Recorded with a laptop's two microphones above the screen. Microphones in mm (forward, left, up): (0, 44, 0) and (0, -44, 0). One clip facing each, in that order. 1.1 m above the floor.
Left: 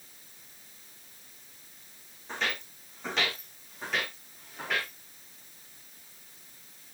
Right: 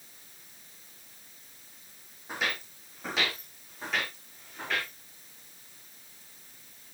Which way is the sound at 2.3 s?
10° right (ahead or behind).